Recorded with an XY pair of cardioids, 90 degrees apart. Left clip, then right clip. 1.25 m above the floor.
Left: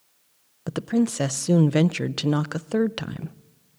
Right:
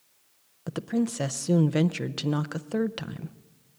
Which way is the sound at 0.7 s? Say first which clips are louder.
Left 5 dB; 35° left.